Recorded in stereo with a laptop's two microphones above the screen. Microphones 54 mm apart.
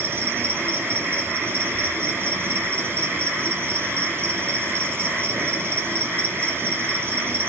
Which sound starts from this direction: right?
An insect, at 0.0 s.